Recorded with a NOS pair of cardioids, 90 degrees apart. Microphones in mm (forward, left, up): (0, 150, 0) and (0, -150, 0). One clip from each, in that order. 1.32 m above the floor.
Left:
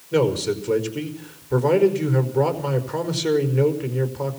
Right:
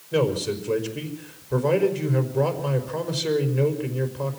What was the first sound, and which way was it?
A man speaking, 20° left.